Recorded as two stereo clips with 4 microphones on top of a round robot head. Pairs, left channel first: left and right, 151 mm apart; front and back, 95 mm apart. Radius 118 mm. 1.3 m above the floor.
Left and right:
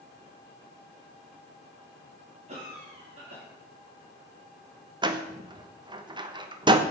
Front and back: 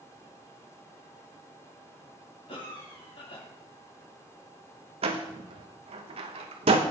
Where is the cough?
40° right, 4 m.